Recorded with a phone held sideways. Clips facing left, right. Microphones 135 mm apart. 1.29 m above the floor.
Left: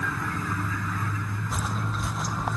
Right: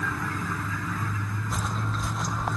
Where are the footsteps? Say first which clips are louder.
Even; 5° left (ahead or behind); by 2.6 s centre (ahead or behind).